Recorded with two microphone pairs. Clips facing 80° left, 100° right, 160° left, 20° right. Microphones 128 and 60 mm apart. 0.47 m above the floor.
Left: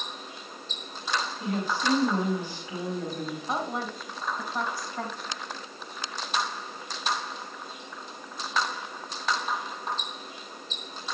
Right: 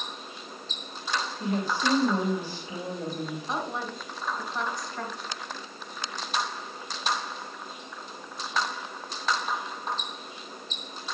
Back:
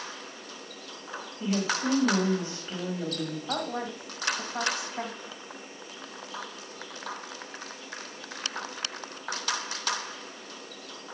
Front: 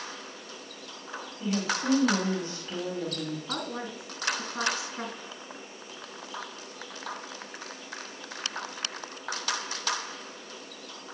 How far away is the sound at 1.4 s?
About 2 m.